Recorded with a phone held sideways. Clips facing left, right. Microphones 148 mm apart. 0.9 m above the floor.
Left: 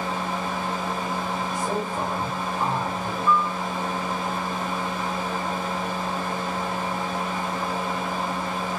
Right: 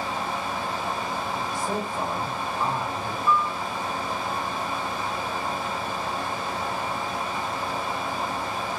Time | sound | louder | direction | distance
0.0 | a fan | left 2 dB | 45° left (ahead or behind) | 1.8 m
1.5 | a man speaking | left 1 dB | 20° left (ahead or behind) | 2.5 m
3.3 | a piano | left 1 dB | 10° right (ahead or behind) | 0.5 m